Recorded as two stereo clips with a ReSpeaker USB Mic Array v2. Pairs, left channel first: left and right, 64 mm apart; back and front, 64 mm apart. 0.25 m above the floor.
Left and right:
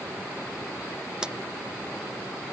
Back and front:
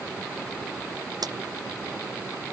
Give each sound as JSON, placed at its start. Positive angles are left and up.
{"t": 1.2, "sound": "a clap", "azimuth_deg": -15}